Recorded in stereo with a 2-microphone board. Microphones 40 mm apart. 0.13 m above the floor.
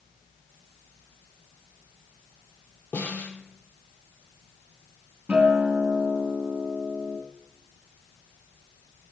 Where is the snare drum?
50° left (ahead or behind), 2.5 m.